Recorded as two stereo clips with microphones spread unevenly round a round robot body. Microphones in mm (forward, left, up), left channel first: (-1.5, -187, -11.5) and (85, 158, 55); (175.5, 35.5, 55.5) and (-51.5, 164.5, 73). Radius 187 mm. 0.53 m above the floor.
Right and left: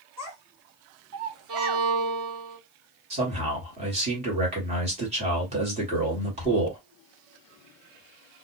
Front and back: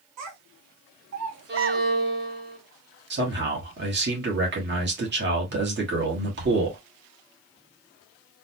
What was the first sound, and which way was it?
A child speaking, 165° left.